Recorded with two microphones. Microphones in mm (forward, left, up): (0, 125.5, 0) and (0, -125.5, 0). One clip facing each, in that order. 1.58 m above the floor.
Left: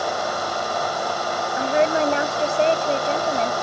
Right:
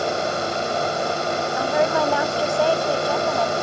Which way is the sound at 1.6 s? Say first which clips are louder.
Left 2 dB; 20° left (ahead or behind).